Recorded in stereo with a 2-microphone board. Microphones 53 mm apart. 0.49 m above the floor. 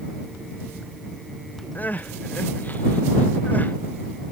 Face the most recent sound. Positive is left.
turn(degrees=35)  # may be behind; listen again after turning